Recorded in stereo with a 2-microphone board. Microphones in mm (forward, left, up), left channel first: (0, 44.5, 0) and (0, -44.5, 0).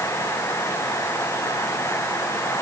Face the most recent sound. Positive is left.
No sound to turn to.